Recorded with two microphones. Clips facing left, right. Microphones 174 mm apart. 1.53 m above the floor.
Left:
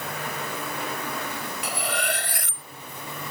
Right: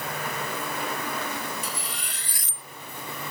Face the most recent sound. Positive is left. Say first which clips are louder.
# left 8 dB
turn(degrees=70)  # may be behind; listen again after turning